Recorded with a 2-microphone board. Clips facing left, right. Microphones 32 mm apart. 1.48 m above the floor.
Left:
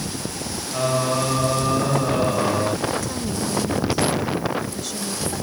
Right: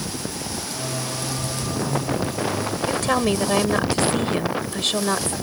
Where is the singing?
45° left (ahead or behind).